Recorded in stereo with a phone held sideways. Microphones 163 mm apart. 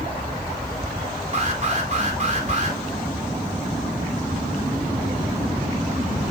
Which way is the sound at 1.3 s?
45° right (ahead or behind).